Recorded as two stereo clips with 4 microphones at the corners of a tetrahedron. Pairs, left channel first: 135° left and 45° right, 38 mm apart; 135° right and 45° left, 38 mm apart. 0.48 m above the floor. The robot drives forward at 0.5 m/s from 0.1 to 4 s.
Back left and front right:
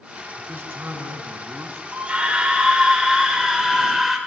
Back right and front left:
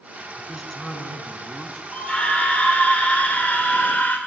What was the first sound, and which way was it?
A man speaking, 45° right.